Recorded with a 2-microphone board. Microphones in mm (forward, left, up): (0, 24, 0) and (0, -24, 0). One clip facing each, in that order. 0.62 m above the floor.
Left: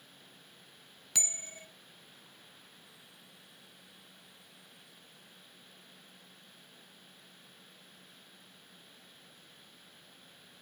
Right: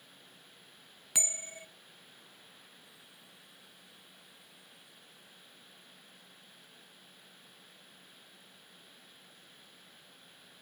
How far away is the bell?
About 0.6 m.